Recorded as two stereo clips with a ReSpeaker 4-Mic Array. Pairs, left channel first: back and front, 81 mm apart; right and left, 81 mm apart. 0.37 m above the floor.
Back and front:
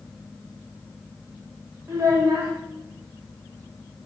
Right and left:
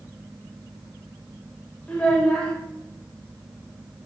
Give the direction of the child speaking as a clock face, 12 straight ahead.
1 o'clock.